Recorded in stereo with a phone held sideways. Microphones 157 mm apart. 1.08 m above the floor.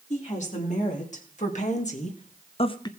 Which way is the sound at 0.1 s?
50° left (ahead or behind).